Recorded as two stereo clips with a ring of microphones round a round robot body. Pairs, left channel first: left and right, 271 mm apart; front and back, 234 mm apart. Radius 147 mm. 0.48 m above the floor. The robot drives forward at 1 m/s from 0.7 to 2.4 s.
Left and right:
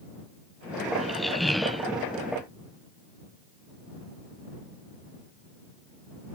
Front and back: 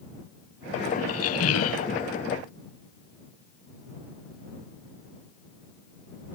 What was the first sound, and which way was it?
A squeak, straight ahead.